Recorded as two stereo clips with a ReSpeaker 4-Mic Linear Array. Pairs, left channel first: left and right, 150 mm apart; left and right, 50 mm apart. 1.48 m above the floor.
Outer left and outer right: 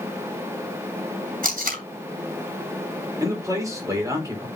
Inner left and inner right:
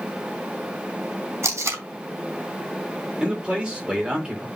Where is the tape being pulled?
70° right (ahead or behind), 3 m.